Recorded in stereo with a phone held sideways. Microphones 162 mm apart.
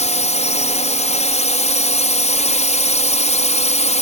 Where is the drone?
45° left (ahead or behind).